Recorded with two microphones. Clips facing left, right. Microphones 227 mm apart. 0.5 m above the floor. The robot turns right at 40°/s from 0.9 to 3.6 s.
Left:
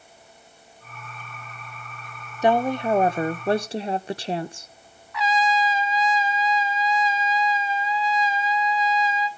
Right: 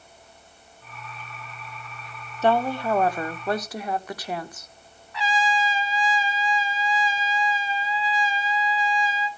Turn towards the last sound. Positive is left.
turn(degrees=-30)  # may be behind; listen again after turning